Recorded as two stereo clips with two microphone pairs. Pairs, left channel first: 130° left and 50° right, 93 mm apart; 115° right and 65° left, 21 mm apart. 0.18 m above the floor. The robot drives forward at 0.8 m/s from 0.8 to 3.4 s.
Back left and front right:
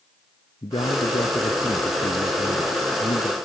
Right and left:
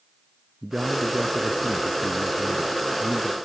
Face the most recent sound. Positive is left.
turn(degrees=115)